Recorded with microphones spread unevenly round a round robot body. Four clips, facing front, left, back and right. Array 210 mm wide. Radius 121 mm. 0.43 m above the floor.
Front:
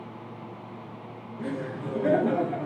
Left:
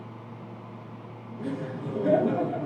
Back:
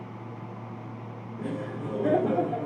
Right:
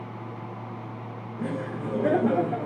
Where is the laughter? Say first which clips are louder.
Right 2 dB, front 1 dB; 115° right, 1.1 m.